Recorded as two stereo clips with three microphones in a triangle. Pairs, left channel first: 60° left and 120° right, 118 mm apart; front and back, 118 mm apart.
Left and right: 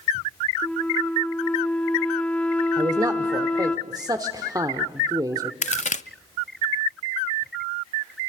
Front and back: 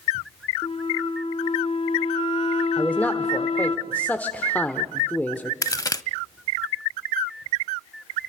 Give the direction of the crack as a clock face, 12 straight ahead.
10 o'clock.